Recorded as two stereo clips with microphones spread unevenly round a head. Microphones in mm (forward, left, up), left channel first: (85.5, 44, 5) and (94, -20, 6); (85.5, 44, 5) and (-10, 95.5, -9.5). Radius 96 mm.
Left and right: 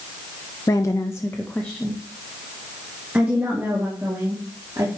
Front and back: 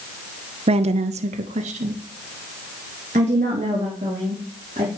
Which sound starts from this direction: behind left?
A woman speaking, at 0.7 s.